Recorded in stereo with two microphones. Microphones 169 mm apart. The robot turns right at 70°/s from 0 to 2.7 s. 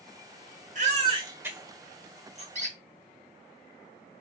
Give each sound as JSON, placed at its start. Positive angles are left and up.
{"t": 0.8, "sound": "a baby crying", "side_deg": -50, "distance_m": 1.3}
{"t": 2.5, "sound": "a squeak", "side_deg": -45, "distance_m": 0.9}